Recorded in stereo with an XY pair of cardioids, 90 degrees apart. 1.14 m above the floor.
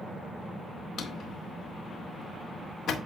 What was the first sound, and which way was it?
A drawer, 65° left.